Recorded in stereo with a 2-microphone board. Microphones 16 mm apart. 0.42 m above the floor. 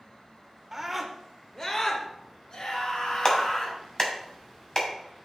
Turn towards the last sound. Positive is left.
turn(degrees=35)  # may be behind; listen again after turning